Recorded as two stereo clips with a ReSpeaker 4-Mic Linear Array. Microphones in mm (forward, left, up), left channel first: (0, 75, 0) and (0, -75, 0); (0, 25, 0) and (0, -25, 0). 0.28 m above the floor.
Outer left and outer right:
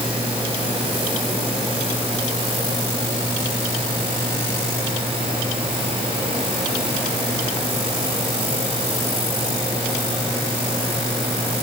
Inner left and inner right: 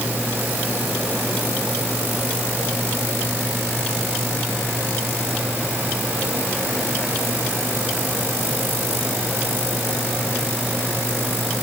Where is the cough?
I don't hear a cough.